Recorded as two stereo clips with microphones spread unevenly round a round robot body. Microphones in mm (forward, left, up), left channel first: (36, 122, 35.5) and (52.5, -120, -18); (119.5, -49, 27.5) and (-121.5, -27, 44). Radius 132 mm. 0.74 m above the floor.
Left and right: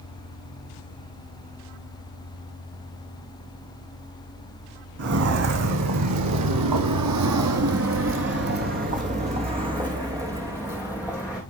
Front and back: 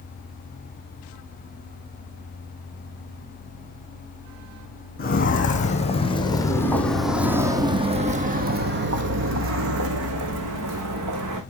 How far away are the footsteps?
About 1.8 m.